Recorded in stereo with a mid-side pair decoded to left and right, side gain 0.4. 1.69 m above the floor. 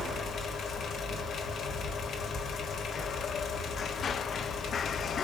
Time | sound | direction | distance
0.0 | a fan | 65° left | 1.5 m